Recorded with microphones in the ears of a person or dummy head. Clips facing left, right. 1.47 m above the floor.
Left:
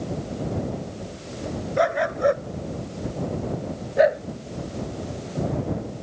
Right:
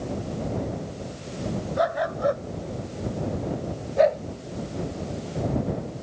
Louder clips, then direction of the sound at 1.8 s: Left 4 dB; 40° left (ahead or behind).